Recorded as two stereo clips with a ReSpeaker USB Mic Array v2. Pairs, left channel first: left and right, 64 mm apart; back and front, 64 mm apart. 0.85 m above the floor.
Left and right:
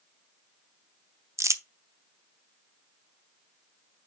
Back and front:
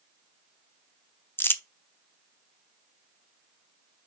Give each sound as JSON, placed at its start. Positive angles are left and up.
{"t": 1.4, "sound": "crumpling", "azimuth_deg": -130, "distance_m": 0.6}